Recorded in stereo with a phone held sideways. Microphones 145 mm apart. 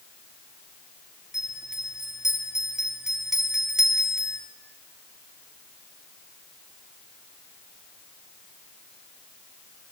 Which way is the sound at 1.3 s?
5° right (ahead or behind).